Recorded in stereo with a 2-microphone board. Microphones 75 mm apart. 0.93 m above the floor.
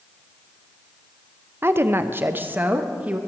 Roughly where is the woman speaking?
Right.